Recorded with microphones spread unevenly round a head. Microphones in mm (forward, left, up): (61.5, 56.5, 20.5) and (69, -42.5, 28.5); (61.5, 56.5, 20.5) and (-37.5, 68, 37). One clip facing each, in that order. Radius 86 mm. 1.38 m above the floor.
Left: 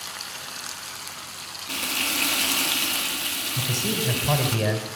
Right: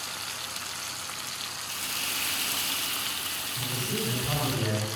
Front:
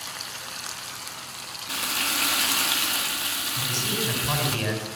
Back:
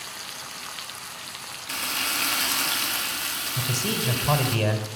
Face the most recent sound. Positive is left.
turn(degrees=130)